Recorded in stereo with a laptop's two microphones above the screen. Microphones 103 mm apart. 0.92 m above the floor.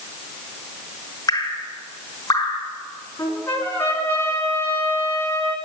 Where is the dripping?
35° left (ahead or behind), 1.4 m.